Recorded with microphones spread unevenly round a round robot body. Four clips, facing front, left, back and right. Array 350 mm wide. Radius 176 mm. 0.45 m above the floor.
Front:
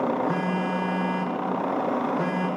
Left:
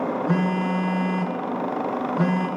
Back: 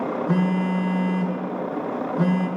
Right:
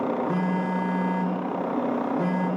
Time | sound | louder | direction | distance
0.3 | a phone buzzing | left 3 dB, back 3 dB | 110° left | 5.5 m